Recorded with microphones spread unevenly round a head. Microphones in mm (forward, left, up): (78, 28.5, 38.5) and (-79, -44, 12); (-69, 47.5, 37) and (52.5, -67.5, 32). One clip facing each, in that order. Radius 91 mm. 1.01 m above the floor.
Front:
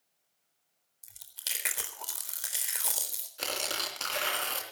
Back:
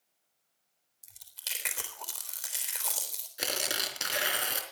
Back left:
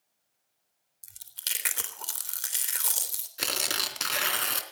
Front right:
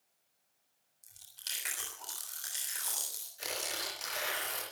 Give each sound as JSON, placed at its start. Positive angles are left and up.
{"t": 1.0, "sound": "chewing", "azimuth_deg": 110, "distance_m": 3.5}
{"t": 3.4, "sound": "tearing paper", "azimuth_deg": 125, "distance_m": 3.5}